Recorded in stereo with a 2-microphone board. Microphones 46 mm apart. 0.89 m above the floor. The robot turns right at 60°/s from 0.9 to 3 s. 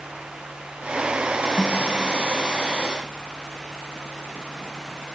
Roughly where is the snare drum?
Centre.